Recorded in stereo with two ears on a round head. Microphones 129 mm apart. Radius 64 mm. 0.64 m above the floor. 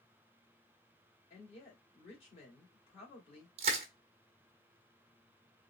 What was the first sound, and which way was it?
A woman speaking, 45° left (ahead or behind).